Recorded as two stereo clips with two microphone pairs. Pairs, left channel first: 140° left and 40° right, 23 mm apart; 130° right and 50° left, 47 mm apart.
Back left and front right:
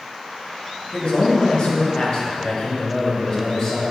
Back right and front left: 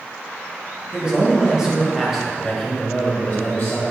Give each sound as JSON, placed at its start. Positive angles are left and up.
{"t": 0.9, "sound": "a man speaking", "azimuth_deg": 110, "distance_m": 1.8}